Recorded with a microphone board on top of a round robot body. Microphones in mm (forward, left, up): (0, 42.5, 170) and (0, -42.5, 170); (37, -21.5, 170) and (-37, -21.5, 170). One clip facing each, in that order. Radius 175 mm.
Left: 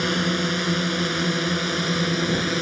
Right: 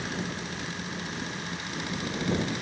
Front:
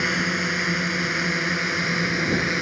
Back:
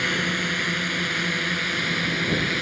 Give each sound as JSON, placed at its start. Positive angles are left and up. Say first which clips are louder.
{"t": 0.0, "sound": "a drone", "louder": "left 11 dB, front 1 dB", "azimuth_deg": 80}